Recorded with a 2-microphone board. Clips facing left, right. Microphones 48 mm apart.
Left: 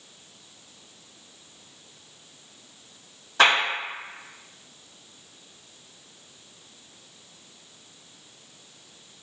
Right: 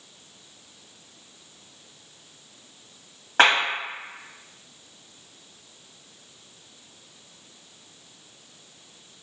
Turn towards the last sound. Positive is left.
turn(degrees=-60)  # may be behind; listen again after turning